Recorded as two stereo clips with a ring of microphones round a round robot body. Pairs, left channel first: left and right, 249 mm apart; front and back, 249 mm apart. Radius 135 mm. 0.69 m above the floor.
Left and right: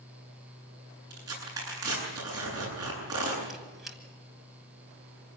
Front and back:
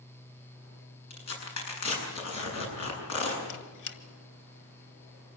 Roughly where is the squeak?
Ahead.